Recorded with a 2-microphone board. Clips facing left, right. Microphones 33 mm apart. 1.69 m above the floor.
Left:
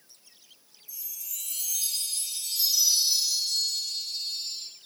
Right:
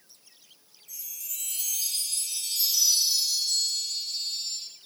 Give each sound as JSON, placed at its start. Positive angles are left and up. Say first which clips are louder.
{"t": 0.9, "sound": "a chime", "louder": "right 1 dB", "side_deg": -55, "distance_m": 1.0}